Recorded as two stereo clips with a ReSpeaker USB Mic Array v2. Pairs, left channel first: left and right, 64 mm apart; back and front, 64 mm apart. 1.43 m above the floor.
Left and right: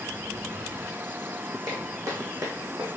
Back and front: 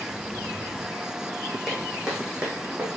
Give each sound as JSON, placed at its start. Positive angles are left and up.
{"t": 1.7, "sound": "footsteps", "azimuth_deg": -85, "distance_m": 3.0}